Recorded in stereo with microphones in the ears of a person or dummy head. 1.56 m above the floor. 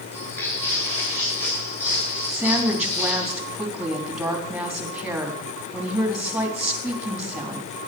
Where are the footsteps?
10° left (ahead or behind), 7 m.